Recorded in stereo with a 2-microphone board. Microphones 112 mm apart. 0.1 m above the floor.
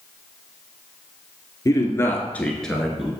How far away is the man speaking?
About 1.2 m.